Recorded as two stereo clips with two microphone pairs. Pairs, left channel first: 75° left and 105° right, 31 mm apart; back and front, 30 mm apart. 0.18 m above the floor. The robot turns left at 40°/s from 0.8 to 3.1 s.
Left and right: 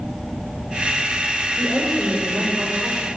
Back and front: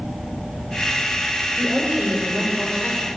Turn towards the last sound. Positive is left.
turn(degrees=-85)